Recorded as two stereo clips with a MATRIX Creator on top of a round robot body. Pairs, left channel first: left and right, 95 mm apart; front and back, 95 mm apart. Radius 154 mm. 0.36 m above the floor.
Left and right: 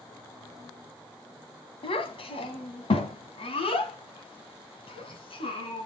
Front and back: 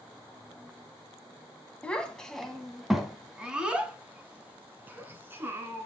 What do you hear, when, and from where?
1.8 s a child speaking: 75° left, 1.9 m; by 5.9 s 115° left, 3 m